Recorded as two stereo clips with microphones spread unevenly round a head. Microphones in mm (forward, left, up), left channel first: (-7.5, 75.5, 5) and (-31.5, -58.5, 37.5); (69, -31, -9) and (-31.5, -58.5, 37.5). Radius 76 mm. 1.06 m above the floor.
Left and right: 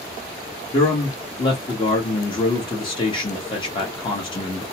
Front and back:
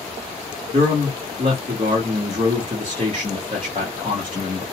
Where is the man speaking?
135° left, 1.0 m.